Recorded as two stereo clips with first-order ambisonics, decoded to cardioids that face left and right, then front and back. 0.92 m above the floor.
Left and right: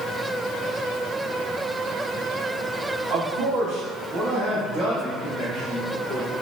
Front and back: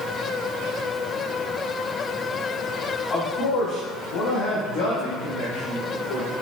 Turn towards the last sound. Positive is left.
turn(degrees=25)